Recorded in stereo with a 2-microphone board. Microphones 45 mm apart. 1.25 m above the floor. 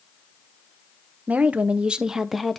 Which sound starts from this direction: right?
A woman speaking, at 1.3 s.